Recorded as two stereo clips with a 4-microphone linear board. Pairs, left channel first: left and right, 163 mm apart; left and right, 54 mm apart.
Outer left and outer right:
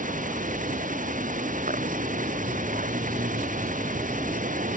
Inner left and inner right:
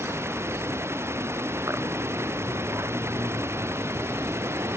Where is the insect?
55° right (ahead or behind).